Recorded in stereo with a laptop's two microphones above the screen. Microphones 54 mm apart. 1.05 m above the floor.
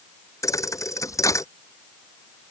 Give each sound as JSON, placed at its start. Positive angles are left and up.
{"t": 0.4, "sound": "a thud", "side_deg": 80}